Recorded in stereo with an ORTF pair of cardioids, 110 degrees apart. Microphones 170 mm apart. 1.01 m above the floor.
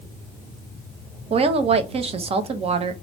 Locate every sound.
1.3 s a woman speaking: 35° right, 0.6 m